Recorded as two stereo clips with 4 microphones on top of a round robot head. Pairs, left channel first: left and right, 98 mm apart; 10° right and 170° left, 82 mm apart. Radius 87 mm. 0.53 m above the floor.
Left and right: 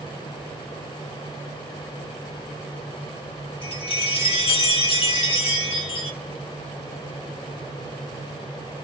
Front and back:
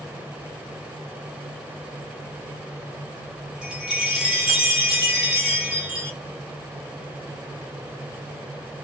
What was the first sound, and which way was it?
A chime, 90° left.